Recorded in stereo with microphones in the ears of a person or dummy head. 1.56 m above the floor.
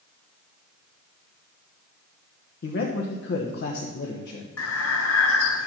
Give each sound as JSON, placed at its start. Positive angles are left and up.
{"t": 2.6, "sound": "a man speaking", "side_deg": 65, "distance_m": 1.2}
{"t": 4.6, "sound": "breathing", "side_deg": 75, "distance_m": 0.8}